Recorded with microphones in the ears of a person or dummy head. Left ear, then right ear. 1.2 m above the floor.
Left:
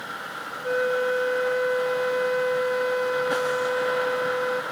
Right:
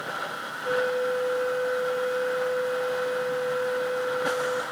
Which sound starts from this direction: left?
A flute, at 0.6 s.